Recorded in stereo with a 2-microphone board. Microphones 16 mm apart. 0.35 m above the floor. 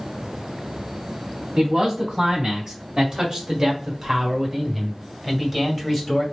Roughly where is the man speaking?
Right.